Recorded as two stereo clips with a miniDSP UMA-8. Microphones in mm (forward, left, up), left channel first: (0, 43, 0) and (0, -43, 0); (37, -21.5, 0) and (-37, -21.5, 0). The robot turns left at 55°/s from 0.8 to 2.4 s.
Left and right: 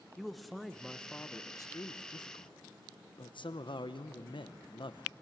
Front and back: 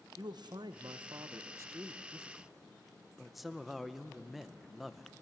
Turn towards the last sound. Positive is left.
turn(degrees=90)